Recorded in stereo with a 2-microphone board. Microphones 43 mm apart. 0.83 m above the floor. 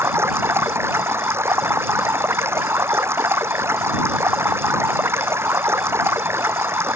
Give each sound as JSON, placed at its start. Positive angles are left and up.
{"t": 0.0, "sound": "running water", "side_deg": -70}